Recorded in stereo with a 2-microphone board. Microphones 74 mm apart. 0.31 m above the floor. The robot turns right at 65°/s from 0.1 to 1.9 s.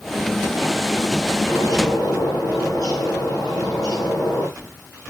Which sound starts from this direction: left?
A bird, at 1.5 s.